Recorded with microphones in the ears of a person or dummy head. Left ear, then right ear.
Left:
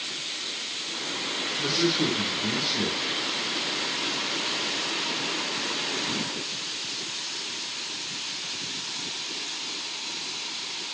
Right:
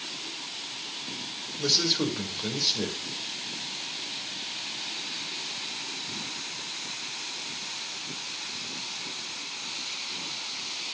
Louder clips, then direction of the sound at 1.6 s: Right 2 dB; 60° right (ahead or behind).